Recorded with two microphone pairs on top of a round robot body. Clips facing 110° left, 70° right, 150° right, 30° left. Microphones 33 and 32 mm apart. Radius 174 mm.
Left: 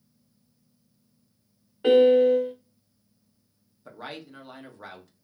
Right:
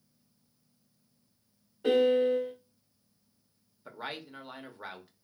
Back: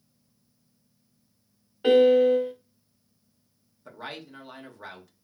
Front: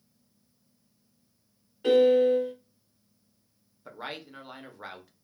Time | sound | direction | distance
1.8 | a piano | 150° left | 0.9 m
3.9 | a man speaking | 10° right | 0.9 m